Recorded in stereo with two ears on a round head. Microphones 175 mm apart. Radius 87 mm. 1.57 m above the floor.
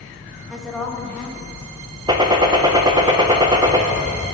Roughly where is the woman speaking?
Centre.